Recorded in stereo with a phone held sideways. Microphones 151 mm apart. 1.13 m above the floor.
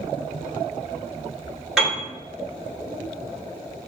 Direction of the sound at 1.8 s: 5° right (ahead or behind).